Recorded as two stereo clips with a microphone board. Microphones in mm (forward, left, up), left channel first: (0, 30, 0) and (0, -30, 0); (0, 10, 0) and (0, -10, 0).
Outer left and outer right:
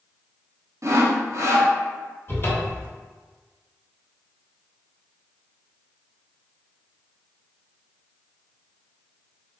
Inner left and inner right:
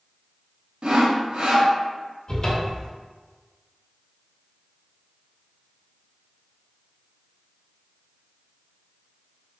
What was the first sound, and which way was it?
Sawing, 55° right (ahead or behind).